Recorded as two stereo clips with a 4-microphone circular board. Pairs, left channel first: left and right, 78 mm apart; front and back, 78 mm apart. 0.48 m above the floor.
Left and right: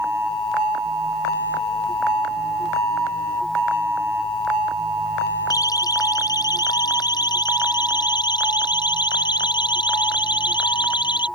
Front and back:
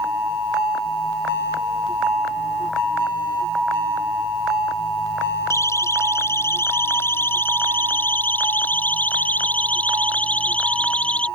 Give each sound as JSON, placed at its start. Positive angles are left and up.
{"t": 5.5, "sound": "a siren", "azimuth_deg": 50}